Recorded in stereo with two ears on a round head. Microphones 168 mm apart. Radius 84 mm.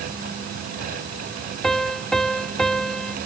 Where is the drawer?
I don't hear a drawer.